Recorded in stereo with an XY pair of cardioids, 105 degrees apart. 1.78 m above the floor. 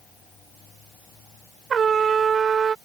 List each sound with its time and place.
1.7 s a trumpet: 45° right